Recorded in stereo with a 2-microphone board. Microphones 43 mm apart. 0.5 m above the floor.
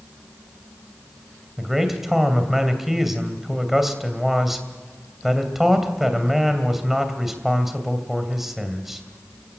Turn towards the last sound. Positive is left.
turn(degrees=-5)  # may be behind; listen again after turning